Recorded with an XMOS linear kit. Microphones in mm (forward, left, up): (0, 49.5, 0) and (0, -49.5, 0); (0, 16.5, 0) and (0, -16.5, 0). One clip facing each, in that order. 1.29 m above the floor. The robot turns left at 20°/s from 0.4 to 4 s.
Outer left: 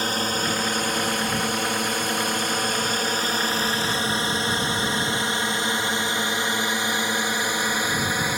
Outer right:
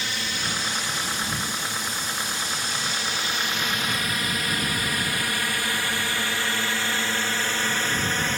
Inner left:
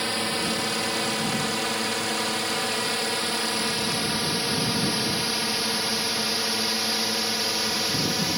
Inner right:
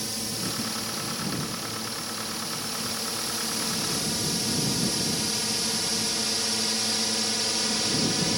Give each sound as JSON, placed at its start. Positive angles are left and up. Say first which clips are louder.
{"t": 0.0, "sound": "a drone", "louder": "outer left 6 dB, inner left 7 dB", "side_deg": 45}